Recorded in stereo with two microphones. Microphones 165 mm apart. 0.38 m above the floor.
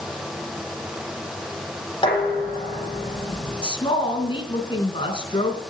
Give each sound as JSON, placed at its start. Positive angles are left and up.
{"t": 2.0, "sound": "dishes clattering", "side_deg": 30, "distance_m": 9.5}
{"t": 3.6, "sound": "a woman speaking", "side_deg": 30, "distance_m": 4.0}